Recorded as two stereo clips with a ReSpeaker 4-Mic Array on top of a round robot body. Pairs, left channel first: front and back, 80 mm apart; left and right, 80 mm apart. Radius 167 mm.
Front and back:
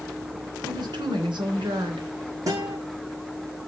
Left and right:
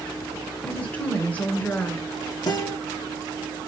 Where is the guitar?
130° left, 6.5 m.